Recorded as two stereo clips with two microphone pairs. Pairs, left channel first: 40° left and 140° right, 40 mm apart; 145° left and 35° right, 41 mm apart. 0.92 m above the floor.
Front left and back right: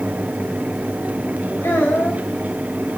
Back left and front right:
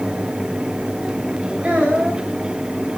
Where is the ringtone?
I don't hear a ringtone.